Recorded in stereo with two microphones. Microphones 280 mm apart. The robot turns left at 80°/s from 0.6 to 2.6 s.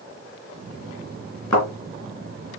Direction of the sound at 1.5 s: 80° left.